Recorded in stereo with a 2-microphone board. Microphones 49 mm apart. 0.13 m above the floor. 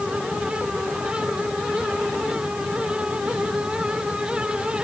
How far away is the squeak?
I don't hear a squeak.